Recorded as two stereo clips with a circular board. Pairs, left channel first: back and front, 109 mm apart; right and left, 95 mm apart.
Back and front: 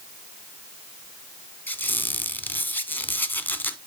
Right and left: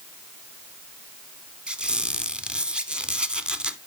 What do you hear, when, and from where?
1.7 s a squeak: 150° left, 0.7 m